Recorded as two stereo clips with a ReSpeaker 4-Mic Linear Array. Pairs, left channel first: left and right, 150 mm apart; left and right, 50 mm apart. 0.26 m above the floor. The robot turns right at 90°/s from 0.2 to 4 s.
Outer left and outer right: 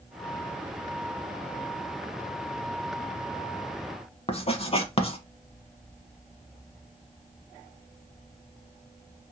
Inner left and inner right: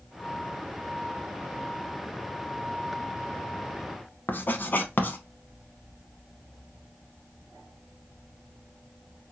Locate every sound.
4.3 s writing: 40° left (ahead or behind), 0.7 m